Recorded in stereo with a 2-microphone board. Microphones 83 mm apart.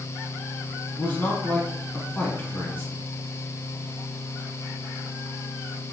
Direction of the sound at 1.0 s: 25° left (ahead or behind).